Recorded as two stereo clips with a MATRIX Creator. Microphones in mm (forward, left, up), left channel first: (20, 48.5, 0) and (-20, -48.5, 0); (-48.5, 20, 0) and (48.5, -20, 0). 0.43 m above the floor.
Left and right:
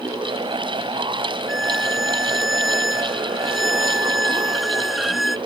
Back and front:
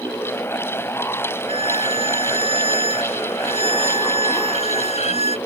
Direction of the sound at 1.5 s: 160° left.